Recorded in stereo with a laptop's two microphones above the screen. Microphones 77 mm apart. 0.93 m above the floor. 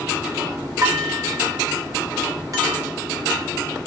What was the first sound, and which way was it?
Dishes clattering, 45° right (ahead or behind).